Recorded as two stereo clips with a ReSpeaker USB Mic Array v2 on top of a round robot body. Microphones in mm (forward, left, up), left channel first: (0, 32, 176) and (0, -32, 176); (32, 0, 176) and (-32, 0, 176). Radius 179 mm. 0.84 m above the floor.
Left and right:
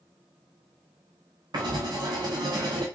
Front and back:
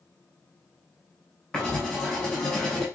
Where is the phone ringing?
No phone ringing in this recording.